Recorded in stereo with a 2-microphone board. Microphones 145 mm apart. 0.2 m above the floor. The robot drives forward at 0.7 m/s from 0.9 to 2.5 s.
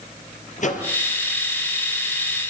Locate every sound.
0.6 s a microwave: 60° left (ahead or behind), 3.5 m